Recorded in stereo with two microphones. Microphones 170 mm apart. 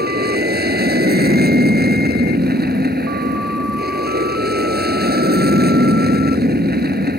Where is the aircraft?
65° right (ahead or behind).